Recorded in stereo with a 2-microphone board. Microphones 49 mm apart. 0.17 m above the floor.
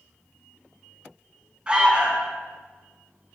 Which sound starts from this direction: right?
An alarm, at 1.7 s.